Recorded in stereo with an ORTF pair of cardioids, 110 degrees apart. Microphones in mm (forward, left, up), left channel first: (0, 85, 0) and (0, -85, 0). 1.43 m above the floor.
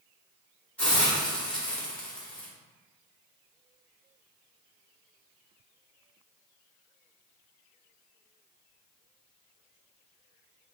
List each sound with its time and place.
0.8 s a hiss: 5° left, 1.0 m